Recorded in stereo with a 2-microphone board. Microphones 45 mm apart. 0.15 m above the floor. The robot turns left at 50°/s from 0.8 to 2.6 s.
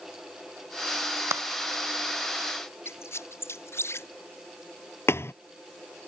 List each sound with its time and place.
1.3 s a clap: 75° right (ahead or behind); by 1.4 s 70° right (ahead or behind)
2.9 s a squeak: 65° left (ahead or behind)
5.1 s a thud: 65° left (ahead or behind)